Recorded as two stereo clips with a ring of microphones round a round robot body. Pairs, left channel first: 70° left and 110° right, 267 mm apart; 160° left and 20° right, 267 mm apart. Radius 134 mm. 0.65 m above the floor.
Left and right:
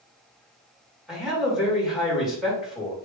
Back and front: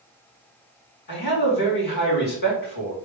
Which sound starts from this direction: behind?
A man speaking, at 1.1 s.